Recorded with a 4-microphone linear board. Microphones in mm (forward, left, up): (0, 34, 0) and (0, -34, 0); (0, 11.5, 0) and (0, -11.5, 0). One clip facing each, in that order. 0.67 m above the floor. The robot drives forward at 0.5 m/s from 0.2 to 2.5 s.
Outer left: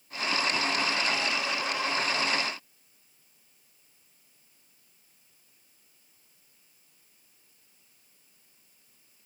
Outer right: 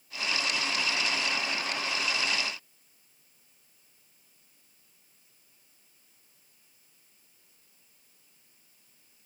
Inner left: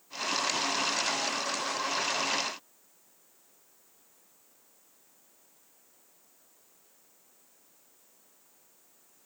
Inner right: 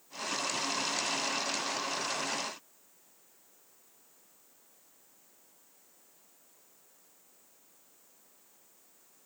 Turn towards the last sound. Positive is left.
No sound to turn to.